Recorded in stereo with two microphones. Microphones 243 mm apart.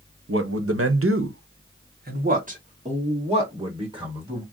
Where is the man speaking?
60° right (ahead or behind), 0.7 m; by 4.4 s 20° right (ahead or behind), 2.5 m.